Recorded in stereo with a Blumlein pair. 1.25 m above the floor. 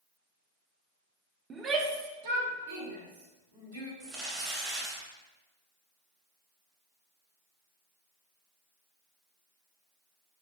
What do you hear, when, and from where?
1.5 s a shout: 15° right, 0.7 m; by 3.9 s 70° right, 2.5 m
4.0 s crumpling: 30° right, 2.0 m